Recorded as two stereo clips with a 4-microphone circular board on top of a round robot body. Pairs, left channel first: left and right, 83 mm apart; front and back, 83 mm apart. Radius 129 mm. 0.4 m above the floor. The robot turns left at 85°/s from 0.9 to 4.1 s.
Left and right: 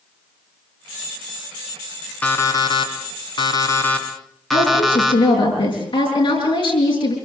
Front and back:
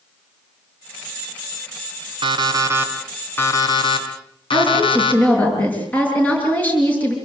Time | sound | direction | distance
2.2 | an alarm clock | 165° left | 3.5 m
4.5 | a woman speaking | 70° left | 7 m